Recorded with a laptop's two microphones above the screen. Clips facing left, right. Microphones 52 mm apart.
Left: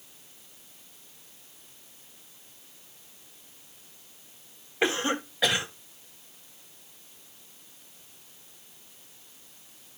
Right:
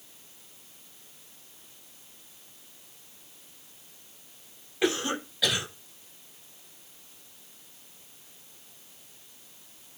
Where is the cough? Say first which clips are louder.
Left 1 dB; 35° left (ahead or behind), 7.5 m.